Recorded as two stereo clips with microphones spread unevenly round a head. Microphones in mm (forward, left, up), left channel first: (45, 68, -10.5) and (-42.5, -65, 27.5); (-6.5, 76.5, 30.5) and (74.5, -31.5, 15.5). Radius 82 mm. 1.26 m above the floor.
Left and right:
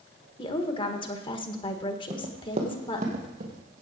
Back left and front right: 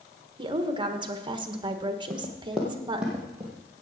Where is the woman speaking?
Straight ahead, 1.5 m.